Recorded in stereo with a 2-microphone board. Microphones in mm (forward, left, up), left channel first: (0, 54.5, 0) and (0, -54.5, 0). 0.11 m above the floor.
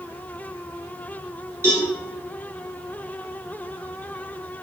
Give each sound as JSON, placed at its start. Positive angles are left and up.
{"t": 1.6, "sound": "a cowbell", "side_deg": -25, "distance_m": 1.5}